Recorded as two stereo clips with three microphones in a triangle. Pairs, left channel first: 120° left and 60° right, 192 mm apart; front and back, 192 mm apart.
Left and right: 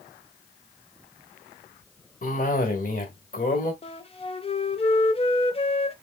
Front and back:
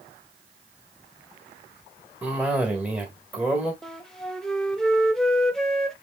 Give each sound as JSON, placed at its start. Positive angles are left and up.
{"t": 2.2, "sound": "a cough", "azimuth_deg": 100, "distance_m": 1.4}
{"t": 3.8, "sound": "a flute", "azimuth_deg": 85, "distance_m": 0.6}